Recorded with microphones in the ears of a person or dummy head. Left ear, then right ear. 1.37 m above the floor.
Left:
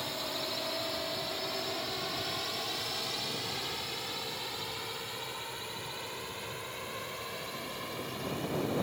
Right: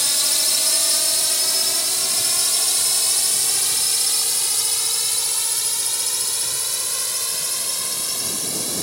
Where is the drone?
70° right (ahead or behind); by 8.8 s 80° right.